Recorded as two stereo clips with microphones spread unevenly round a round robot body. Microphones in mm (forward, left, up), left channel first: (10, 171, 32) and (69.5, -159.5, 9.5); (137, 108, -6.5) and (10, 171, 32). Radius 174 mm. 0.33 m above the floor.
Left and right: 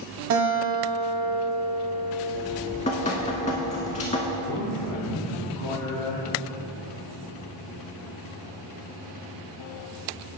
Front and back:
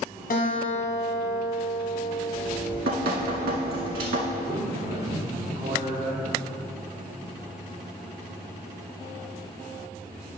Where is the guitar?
40° right, 1.0 m.